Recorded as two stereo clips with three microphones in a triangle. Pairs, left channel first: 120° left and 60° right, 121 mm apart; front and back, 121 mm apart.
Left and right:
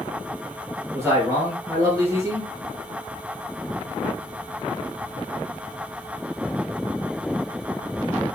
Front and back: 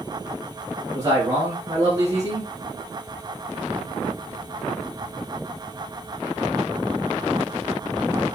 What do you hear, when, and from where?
0.9 s a man speaking: 125° right, 3 m